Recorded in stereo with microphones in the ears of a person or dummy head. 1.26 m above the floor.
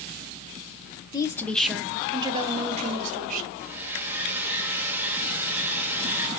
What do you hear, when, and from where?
1.1 s a woman speaking: 25° left (ahead or behind), 0.7 m; by 3.5 s 45° right (ahead or behind), 1.2 m
3.6 s a hair dryer: 10° right (ahead or behind), 1.2 m